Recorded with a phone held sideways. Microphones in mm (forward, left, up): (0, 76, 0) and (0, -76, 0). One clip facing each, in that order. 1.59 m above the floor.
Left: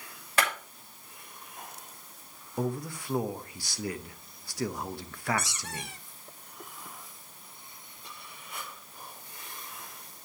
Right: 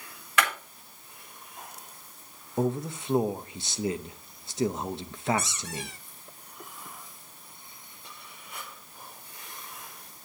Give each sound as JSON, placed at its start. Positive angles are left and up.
{"t": 0.4, "sound": "a clap", "side_deg": 35, "distance_m": 6.5}
{"t": 2.6, "sound": "a man speaking", "side_deg": -20, "distance_m": 0.8}
{"t": 5.4, "sound": "a squeak", "side_deg": 60, "distance_m": 2.5}